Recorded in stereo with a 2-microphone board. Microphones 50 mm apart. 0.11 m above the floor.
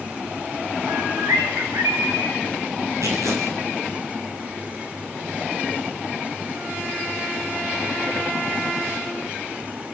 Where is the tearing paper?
80° right, 5 m.